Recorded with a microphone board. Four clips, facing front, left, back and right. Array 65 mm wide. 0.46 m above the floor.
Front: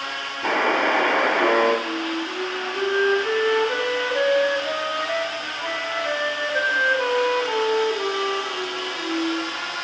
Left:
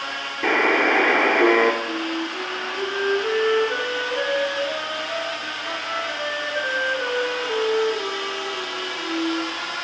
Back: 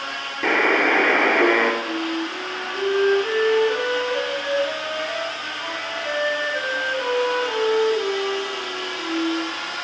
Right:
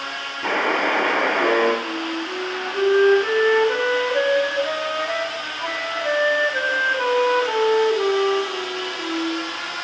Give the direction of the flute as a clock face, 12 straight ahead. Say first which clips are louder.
Even, back 1 dB; 3 o'clock.